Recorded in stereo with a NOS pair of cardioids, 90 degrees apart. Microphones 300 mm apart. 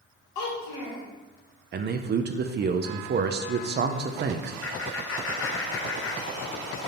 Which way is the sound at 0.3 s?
70° left.